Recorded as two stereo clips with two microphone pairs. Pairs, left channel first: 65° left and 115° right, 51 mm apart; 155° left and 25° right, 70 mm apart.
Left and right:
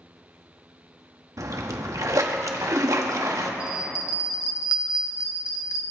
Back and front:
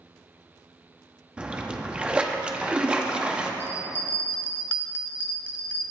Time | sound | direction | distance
1.4 | a splash | 100° right | 1.3 m
3.6 | a bell | 85° left | 1.3 m